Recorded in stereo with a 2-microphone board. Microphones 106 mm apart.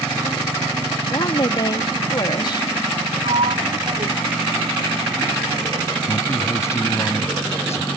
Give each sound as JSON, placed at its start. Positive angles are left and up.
{"t": 1.1, "sound": "a woman speaking", "side_deg": 45}
{"t": 3.2, "sound": "a sliding door", "side_deg": -80}
{"t": 6.1, "sound": "a man speaking", "side_deg": 25}